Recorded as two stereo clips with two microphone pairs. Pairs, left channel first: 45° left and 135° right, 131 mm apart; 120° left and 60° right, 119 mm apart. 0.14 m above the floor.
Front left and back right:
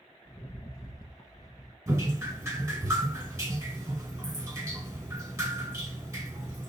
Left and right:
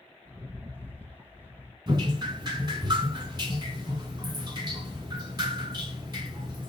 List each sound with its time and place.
0.2 s a rattle: straight ahead, 0.8 m
1.9 s dripping: 80° right, 2 m